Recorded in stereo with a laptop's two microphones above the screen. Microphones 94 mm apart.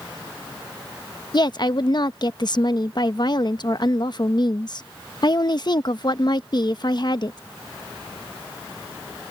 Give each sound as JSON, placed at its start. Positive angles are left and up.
{"t": 1.3, "sound": "a woman speaking", "side_deg": 50}